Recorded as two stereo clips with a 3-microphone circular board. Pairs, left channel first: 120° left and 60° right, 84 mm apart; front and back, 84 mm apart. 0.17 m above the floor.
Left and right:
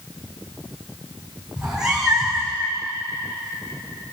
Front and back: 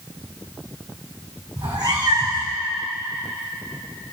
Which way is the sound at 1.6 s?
145° right.